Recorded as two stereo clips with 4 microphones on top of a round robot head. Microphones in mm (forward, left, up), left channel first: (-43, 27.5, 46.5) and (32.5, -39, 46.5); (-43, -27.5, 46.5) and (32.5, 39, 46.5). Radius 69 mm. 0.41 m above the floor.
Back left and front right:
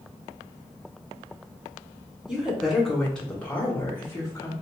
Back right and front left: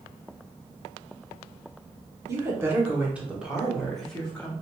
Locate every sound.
2.3 s a woman speaking: 35° left, 1.5 m; by 4.5 s 160° left, 1.6 m